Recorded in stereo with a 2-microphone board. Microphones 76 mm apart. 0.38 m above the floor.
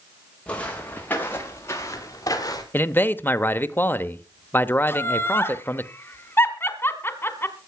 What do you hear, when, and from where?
0.5 s footsteps: 15° left (ahead or behind), 5 m; by 2.6 s 55° left (ahead or behind), 5 m
2.7 s a man speaking: 25° left (ahead or behind), 0.9 m
4.9 s laughter: 30° left (ahead or behind), 1.6 m